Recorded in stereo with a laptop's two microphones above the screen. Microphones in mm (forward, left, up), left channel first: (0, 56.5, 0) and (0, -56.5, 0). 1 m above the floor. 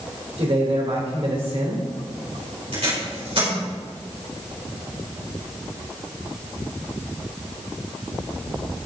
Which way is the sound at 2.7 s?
60° right (ahead or behind).